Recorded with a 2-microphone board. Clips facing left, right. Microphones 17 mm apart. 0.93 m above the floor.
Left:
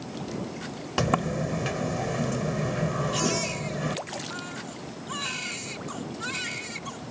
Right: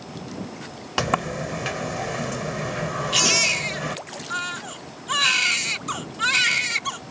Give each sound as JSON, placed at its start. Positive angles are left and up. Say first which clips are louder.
{"t": 1.0, "sound": "a sliding door", "louder": "right 2 dB", "side_deg": -20}
{"t": 3.1, "sound": "a baby crying", "louder": "right 8 dB", "side_deg": -80}